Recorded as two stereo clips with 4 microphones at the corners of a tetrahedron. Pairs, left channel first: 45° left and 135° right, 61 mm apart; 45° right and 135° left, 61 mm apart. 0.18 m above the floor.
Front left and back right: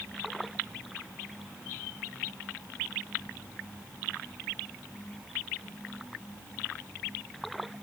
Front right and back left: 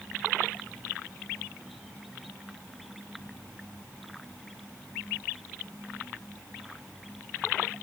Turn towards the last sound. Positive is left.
No sound to turn to.